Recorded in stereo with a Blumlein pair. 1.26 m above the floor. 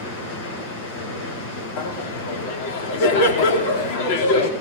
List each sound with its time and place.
0.0 s running water: 40° left, 8 m
1.8 s laughter: 50° left, 3.5 m